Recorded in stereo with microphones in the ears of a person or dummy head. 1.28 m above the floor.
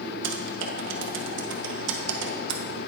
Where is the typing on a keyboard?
75° right (ahead or behind), 1.1 m.